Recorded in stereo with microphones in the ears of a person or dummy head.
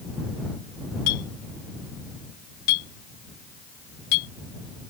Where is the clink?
60° left (ahead or behind).